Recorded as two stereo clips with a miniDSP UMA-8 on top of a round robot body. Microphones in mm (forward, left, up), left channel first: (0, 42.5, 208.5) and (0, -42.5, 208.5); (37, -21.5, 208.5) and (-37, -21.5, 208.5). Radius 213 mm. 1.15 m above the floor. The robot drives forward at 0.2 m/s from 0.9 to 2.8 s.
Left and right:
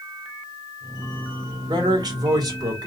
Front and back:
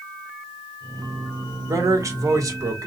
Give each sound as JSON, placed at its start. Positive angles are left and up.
{"t": 1.7, "sound": "a man speaking", "azimuth_deg": -130, "distance_m": 1.9}